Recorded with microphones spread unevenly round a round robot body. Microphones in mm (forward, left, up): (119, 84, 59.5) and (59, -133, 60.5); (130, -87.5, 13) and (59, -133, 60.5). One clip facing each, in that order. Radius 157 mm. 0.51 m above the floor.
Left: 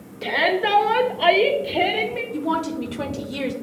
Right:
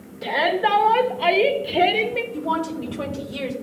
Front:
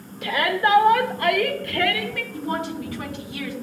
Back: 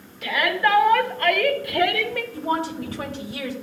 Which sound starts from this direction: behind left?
A woman speaking, at 2.3 s.